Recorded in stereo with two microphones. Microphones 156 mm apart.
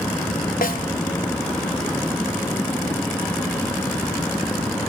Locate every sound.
0.6 s a snare drum: 65° left (ahead or behind), 1.6 m